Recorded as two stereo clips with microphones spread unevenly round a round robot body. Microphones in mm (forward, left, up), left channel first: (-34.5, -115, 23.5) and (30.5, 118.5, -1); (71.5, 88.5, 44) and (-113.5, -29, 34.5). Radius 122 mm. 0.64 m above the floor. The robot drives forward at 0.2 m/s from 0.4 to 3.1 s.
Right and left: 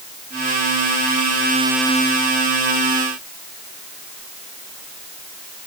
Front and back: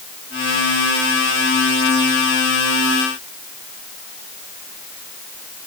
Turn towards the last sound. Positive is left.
No sound to turn to.